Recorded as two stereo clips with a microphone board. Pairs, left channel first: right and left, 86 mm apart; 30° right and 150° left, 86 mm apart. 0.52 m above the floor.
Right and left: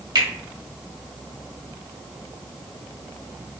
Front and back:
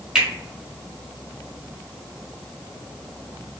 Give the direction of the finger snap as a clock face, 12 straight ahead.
10 o'clock.